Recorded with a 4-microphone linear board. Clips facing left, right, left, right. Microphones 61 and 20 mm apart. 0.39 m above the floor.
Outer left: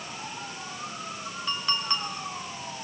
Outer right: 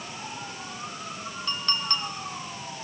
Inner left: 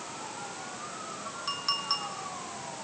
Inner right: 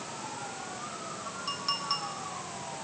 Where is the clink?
10° left (ahead or behind), 3.5 m.